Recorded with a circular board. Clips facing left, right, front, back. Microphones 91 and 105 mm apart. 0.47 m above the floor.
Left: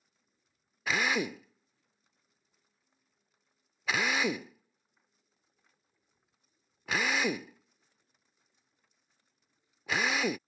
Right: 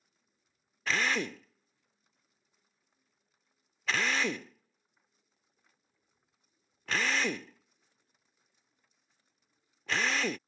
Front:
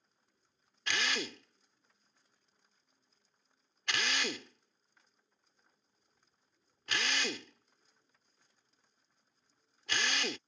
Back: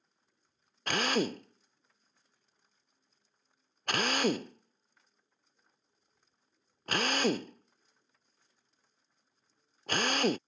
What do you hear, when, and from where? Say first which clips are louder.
0.9 s a drill: left 1 dB, back 7 dB; 165° left